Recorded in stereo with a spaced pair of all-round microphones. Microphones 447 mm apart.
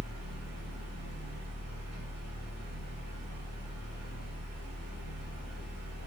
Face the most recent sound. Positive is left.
turn(degrees=-35)  # may be behind; listen again after turning